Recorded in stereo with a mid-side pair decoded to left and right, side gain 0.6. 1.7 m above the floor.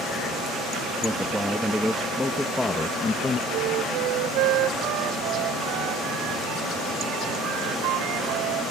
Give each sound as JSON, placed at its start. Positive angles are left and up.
{"t": 1.0, "sound": "a man speaking", "azimuth_deg": -10}
{"t": 3.5, "sound": "a flute", "azimuth_deg": -70}